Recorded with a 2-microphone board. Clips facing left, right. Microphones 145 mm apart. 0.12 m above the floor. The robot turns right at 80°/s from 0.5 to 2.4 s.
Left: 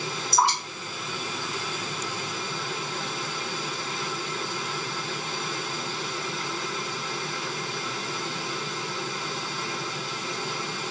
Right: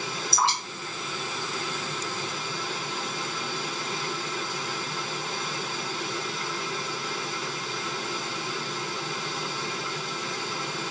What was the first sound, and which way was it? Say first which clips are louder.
Dripping: left 4 dB; 15° left (ahead or behind).